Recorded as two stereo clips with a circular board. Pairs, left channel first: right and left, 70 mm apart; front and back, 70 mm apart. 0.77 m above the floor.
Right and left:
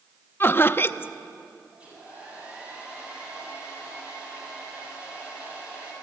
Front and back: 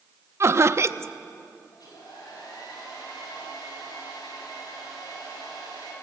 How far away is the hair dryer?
About 8 m.